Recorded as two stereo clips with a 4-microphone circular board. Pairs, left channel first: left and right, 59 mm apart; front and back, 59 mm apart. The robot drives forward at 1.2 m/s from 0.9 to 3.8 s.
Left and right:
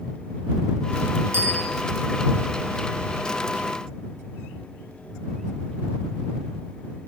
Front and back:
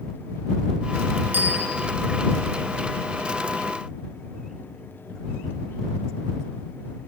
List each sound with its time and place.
1.3 s a bicycle bell: 130° right, 6 m